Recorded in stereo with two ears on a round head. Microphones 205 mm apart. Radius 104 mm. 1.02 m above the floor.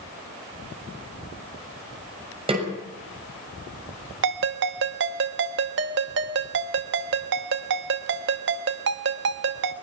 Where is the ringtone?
55° right (ahead or behind), 1.1 m.